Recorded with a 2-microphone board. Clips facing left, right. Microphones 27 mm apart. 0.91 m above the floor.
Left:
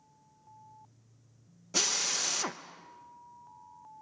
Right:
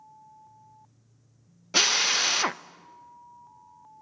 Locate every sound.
1.7 s a drill: 40° right (ahead or behind), 0.7 m